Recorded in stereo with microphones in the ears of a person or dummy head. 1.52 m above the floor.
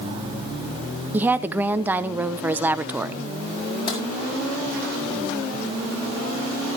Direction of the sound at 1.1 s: 5° right (ahead or behind).